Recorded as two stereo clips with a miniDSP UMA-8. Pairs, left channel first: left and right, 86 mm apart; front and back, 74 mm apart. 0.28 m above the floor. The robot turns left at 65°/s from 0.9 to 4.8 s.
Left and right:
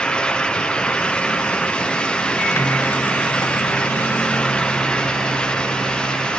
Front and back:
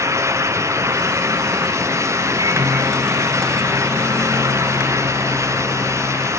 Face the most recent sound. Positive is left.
turn(degrees=-5)